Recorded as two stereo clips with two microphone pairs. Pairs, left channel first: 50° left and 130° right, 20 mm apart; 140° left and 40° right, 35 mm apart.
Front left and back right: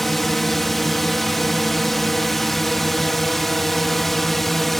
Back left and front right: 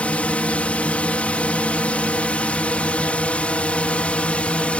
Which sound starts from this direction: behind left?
A drone, at 0.0 s.